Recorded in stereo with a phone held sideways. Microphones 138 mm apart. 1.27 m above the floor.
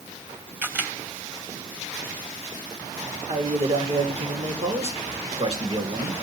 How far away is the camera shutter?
About 3 m.